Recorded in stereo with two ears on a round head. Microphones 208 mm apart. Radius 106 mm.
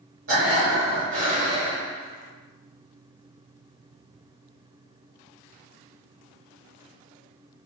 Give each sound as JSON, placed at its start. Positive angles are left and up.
{"t": 0.3, "sound": "breathing", "side_deg": -60, "distance_m": 1.6}